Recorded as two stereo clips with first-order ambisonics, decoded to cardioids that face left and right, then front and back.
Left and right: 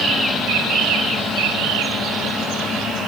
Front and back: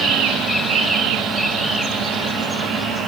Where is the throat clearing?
No throat clearing in this recording.